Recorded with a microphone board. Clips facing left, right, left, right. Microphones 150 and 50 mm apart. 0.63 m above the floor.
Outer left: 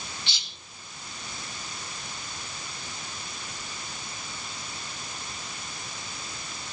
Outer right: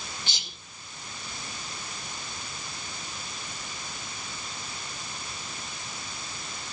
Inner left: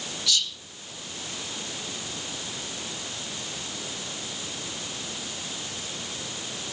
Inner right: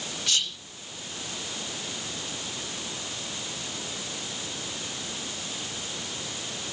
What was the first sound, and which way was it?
Whispering, 45° right (ahead or behind).